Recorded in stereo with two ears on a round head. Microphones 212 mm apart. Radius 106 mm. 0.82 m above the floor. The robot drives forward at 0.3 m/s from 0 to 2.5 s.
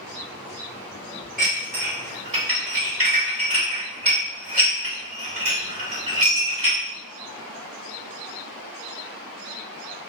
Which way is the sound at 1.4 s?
35° right (ahead or behind).